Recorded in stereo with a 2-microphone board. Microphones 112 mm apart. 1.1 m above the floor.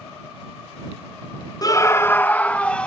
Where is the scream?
35° left (ahead or behind); by 2.9 s 10° left (ahead or behind).